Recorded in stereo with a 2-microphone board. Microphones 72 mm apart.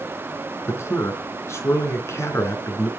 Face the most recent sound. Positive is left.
turn(degrees=40)  # may be behind; listen again after turning